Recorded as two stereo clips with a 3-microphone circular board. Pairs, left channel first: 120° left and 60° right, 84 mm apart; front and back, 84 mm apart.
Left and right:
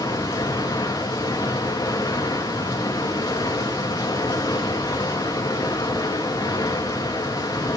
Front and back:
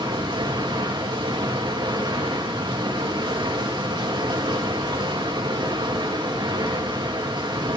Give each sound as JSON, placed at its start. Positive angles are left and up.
{"t": 0.0, "sound": "running water", "azimuth_deg": 165, "distance_m": 3.0}